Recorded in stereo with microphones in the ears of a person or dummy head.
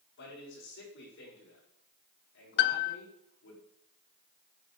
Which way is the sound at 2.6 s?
60° left (ahead or behind).